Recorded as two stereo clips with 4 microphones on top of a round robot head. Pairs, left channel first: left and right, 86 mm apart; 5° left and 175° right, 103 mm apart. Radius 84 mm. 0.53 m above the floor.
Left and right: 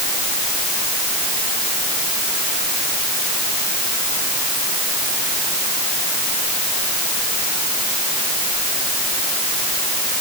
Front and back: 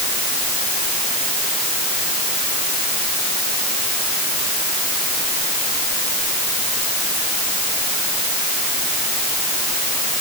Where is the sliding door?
No sliding door in this recording.